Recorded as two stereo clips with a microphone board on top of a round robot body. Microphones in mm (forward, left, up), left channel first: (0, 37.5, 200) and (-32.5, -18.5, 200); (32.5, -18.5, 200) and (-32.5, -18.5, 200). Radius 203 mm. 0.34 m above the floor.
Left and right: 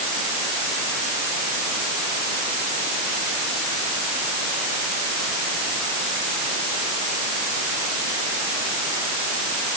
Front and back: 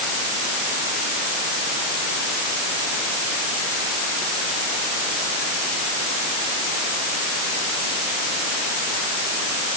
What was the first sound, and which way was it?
Only background noise.